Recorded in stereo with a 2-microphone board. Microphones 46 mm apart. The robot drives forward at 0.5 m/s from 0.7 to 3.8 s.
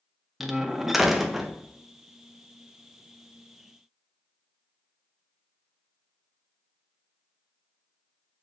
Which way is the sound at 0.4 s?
5° right (ahead or behind).